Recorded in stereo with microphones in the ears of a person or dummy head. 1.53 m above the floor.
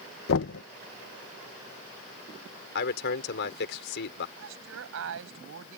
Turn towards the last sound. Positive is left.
turn(degrees=-85)